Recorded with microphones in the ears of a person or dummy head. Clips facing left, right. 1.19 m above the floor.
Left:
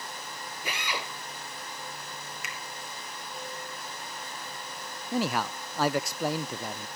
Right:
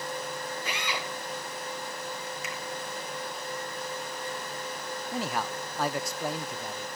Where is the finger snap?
50° left (ahead or behind), 2 m.